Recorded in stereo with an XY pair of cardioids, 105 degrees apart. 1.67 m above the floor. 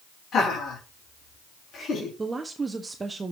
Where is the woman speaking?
25° right, 0.9 m.